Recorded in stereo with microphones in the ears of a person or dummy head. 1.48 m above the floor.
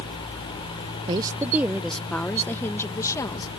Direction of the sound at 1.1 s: 25° right (ahead or behind).